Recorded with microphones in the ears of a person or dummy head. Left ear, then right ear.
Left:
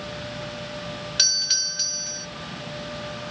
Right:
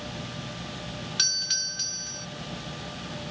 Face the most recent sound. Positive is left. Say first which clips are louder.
# left 5 dB
turn(degrees=20)  # may be behind; listen again after turning